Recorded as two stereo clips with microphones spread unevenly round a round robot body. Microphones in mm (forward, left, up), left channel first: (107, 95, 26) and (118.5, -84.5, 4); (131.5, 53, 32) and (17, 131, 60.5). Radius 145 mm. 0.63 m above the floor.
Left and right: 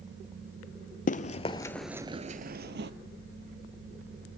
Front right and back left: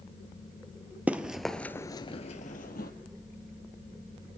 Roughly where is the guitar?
I don't hear a guitar.